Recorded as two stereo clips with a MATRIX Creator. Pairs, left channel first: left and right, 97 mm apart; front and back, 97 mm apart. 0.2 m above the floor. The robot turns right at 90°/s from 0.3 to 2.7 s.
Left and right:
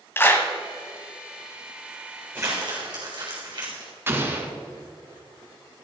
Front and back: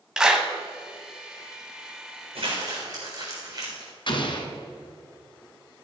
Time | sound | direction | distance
0.2 | a clap | 110° left | 1.2 m
2.4 | crumpling | 160° right | 4 m
4.1 | an explosion | 25° right | 1.4 m